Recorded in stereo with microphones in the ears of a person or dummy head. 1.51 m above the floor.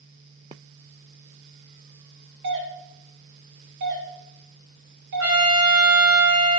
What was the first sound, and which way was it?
A doorbell, 60° right (ahead or behind).